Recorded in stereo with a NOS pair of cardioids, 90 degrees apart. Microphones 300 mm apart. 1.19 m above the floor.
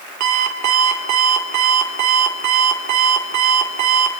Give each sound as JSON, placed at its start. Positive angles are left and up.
{"t": 0.2, "sound": "an alarm clock", "azimuth_deg": -65, "distance_m": 2.5}